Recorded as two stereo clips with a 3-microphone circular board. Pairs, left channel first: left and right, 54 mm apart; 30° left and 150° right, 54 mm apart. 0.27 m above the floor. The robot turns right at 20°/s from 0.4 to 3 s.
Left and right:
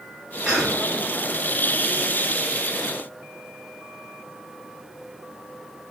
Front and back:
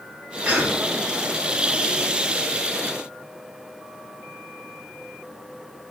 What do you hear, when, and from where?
0.5 s a cough: 150° right, 1.2 m; by 0.8 s 140° right, 1.2 m